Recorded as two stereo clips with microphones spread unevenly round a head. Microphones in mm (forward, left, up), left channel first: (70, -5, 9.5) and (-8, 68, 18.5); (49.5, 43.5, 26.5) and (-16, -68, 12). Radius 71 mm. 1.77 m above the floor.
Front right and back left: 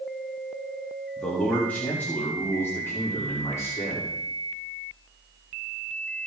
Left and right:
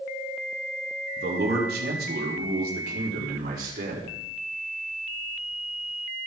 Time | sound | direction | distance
1.2 | a man speaking | 125° right | 3.5 m